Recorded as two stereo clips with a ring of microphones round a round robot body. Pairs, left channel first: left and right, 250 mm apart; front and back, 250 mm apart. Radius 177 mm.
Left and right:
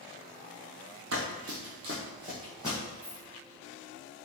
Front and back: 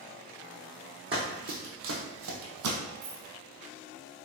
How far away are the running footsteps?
About 0.9 m.